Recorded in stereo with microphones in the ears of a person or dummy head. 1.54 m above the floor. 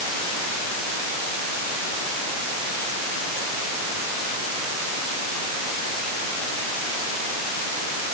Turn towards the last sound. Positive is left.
No sound to turn to.